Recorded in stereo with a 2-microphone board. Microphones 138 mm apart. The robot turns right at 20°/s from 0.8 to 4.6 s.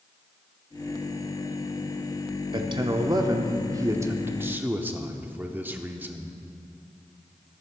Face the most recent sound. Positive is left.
turn(degrees=-20)